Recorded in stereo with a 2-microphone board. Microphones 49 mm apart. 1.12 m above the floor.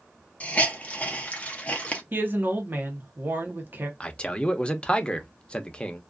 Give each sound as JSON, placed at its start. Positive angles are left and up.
{"t": 0.4, "sound": "a hiss", "side_deg": 30, "distance_m": 0.7}
{"t": 2.1, "sound": "a woman speaking", "side_deg": -45, "distance_m": 0.8}
{"t": 4.0, "sound": "a man speaking", "side_deg": 25, "distance_m": 0.5}